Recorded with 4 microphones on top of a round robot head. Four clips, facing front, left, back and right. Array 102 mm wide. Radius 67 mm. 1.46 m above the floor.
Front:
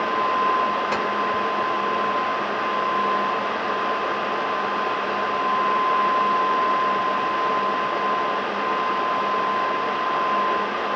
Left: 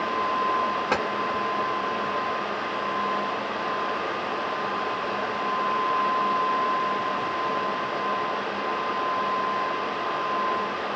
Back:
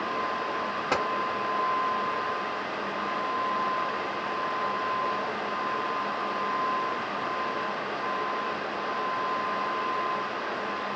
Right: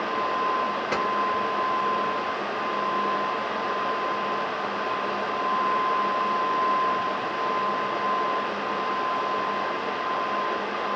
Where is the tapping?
105° left, 1.3 m.